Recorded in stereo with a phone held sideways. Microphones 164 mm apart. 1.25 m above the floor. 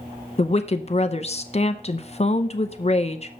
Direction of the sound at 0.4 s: 40° left (ahead or behind).